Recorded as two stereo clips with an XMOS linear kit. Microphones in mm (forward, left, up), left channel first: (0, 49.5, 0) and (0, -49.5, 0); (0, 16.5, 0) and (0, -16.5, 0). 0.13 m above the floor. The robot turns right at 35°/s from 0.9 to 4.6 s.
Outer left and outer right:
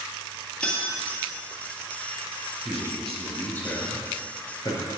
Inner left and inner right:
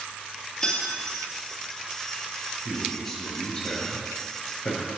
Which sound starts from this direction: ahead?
A man speaking, at 2.6 s.